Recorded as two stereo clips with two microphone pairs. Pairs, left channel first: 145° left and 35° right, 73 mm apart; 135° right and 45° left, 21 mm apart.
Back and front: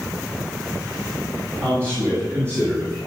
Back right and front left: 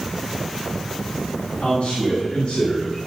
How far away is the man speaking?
About 6.5 m.